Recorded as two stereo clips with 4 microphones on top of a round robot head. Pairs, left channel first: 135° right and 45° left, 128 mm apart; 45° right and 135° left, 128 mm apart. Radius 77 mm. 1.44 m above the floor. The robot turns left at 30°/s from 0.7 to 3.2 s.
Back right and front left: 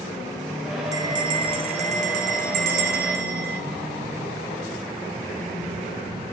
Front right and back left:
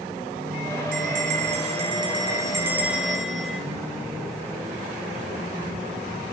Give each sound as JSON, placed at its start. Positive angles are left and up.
{"t": 0.9, "sound": "a bell", "azimuth_deg": 110, "distance_m": 4.0}